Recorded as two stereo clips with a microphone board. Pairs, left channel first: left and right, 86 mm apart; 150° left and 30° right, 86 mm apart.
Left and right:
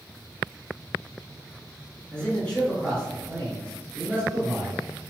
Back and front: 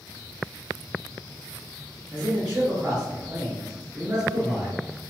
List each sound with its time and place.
2.1 s a man speaking: 35° left, 1.8 m